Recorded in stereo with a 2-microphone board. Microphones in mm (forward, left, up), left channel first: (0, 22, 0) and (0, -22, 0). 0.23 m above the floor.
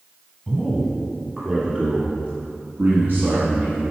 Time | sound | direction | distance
0.5 | a man speaking | 5° left (ahead or behind) | 1.4 m